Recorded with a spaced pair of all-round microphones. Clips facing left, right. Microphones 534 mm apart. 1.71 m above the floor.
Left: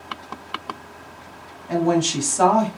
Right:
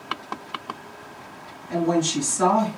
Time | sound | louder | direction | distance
1.7 | a woman speaking | left 2 dB | 80° left | 0.9 m